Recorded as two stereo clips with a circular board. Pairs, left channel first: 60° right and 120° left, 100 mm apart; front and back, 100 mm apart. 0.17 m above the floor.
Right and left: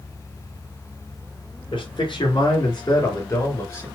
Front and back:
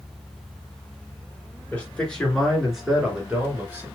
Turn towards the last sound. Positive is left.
turn(degrees=-115)